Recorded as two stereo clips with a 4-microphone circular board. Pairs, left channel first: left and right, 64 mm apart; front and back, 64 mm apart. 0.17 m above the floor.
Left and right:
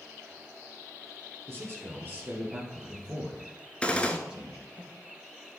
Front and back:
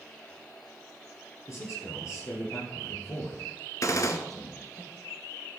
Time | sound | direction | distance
1.5 | a man speaking | 40° right | 3 m
3.8 | a gunshot | 20° left | 0.8 m